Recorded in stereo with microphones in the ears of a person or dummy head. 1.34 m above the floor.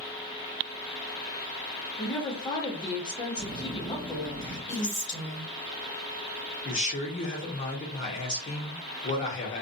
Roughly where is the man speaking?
Left.